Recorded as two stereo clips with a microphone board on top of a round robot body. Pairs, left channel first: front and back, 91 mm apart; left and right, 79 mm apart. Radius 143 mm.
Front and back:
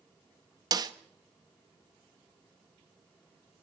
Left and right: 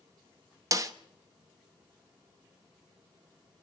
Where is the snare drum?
135° right, 1.1 m.